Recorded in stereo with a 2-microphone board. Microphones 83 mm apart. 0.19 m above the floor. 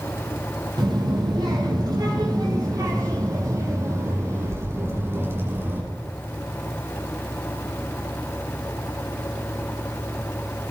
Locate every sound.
0.8 s a child speaking: 60° right (ahead or behind), 5 m; by 5.8 s 25° right (ahead or behind), 6 m